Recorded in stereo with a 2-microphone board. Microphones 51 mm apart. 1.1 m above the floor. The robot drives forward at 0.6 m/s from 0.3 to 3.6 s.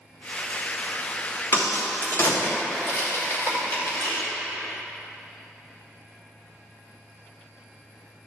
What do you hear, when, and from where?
1.5 s a crack: 65° left (ahead or behind), 2.0 m; by 4.2 s 40° left (ahead or behind), 3 m